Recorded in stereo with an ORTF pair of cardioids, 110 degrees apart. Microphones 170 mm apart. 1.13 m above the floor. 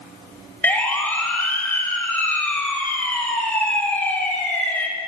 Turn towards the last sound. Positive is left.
turn(degrees=10)